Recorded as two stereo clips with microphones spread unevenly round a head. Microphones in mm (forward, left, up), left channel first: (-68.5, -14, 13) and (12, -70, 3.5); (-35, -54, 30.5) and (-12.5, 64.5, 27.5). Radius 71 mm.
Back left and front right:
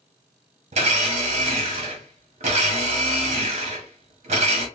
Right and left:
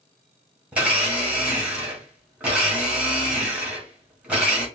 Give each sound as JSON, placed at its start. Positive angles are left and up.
{"t": 0.7, "sound": "a blender", "azimuth_deg": -5, "distance_m": 0.9}